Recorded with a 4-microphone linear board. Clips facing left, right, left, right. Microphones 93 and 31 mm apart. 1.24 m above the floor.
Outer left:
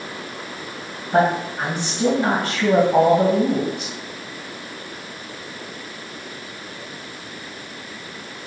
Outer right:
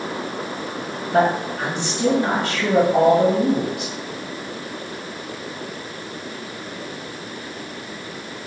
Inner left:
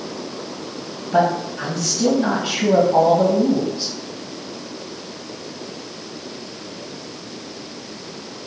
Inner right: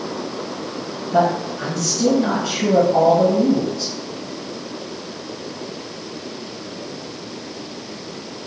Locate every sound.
1.1 s a man speaking: 45° left (ahead or behind), 1.8 m